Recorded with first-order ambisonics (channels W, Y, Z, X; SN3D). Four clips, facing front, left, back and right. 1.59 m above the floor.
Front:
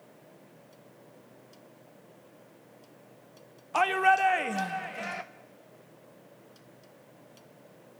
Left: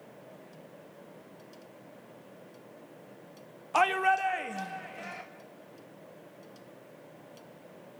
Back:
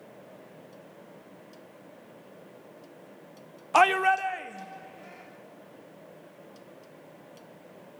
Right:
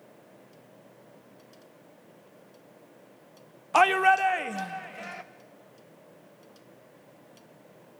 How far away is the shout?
About 0.5 m.